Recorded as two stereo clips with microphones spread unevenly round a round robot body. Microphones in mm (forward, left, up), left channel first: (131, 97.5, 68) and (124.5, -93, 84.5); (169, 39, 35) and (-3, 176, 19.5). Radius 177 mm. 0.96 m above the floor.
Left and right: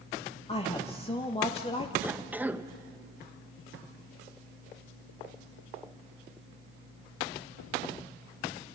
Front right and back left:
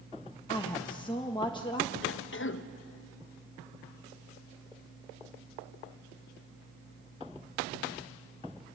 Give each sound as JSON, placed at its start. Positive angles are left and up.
{"t": 0.5, "sound": "a woman speaking", "azimuth_deg": 30, "distance_m": 1.5}
{"t": 2.0, "sound": "a cough", "azimuth_deg": -10, "distance_m": 1.2}